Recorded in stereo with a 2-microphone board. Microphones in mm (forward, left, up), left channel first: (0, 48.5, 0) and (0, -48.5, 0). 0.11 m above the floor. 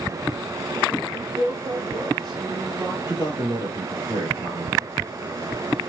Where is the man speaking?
40° right (ahead or behind), 3 m.